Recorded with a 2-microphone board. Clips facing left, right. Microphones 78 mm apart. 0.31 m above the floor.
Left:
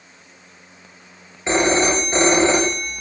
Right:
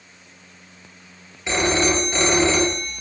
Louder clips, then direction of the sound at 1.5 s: Left 3 dB; 30° left (ahead or behind).